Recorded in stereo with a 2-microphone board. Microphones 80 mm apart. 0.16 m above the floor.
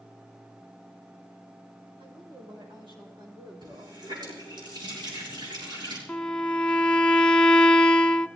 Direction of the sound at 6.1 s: 15° left (ahead or behind).